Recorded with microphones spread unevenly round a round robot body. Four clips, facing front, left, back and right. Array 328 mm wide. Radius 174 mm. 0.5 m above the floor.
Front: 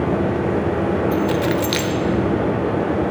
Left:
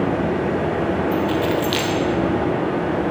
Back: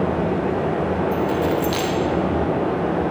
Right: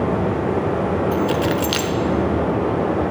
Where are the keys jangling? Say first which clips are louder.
Even, front 1 dB; 35° right, 1.1 m.